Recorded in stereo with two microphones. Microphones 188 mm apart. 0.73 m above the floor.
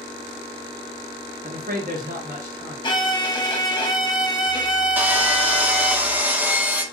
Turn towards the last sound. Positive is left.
turn(degrees=-10)  # may be behind; listen again after turning